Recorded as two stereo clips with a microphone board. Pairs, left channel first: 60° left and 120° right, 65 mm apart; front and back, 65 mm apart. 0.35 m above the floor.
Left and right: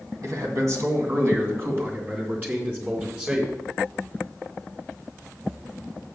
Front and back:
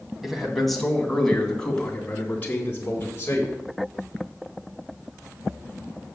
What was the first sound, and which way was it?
A man speaking, 95° right.